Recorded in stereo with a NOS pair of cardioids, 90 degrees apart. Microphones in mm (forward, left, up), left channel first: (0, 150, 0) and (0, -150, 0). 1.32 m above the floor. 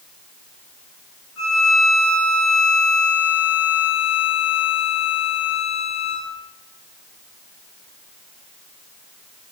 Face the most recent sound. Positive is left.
turn(degrees=65)